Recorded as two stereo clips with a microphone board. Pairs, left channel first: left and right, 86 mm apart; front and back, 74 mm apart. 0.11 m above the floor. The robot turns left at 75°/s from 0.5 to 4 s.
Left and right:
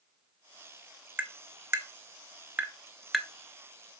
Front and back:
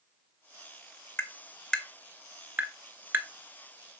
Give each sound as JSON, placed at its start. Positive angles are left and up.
{"t": 1.2, "sound": "tapping", "azimuth_deg": -30, "distance_m": 1.0}